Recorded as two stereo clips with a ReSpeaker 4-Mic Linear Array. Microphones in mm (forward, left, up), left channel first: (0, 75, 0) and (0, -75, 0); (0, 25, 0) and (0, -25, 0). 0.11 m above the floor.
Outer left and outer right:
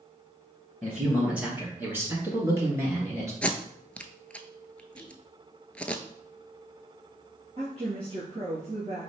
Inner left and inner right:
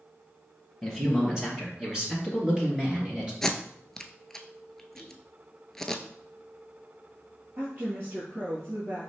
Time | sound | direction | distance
0.8 | a man speaking | 5° right (ahead or behind) | 1.8 m
3.4 | tape being pulled | 10° left (ahead or behind) | 0.5 m
5.0 | whispering | 30° right (ahead or behind) | 1.5 m
7.6 | a woman speaking | 45° right (ahead or behind) | 2 m